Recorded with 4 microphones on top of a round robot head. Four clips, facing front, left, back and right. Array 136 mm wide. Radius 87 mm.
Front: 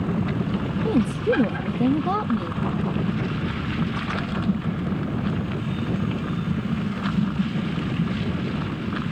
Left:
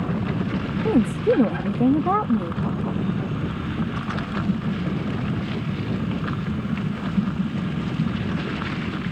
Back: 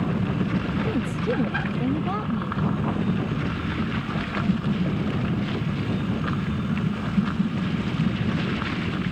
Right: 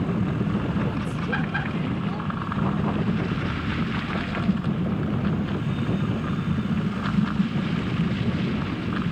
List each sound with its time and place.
0.8 s a woman speaking: 70° left